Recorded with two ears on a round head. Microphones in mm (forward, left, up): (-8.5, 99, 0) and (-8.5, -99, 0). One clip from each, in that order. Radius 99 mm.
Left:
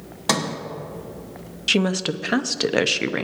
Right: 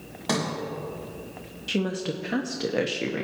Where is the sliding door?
35° left (ahead or behind), 1.2 m.